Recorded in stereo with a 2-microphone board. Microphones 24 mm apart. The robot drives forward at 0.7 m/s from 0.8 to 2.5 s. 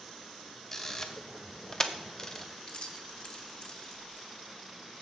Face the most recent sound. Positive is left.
turn(degrees=45)  # may be behind; listen again after turning